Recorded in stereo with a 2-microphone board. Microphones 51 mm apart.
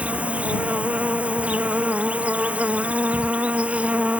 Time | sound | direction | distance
0.0 | an insect | 25° right (ahead or behind) | ?